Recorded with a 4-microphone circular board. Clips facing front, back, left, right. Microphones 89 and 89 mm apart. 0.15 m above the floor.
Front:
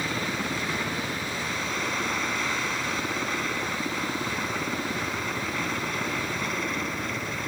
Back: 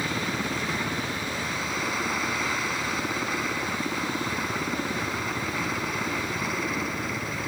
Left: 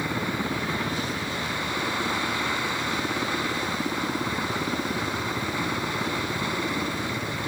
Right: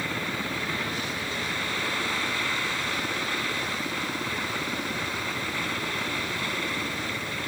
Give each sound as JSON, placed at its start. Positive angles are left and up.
{"t": 0.0, "sound": "a helicopter", "azimuth_deg": 105}